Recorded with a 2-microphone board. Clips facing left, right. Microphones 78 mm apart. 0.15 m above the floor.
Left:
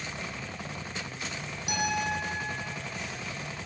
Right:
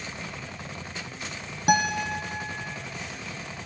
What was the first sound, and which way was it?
A guitar, 55° right (ahead or behind).